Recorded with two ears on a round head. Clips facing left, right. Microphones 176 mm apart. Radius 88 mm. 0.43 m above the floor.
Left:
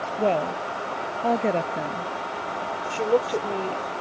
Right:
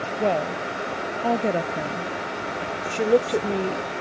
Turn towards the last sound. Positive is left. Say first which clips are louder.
# right 3 dB
turn(degrees=-20)  # may be behind; listen again after turning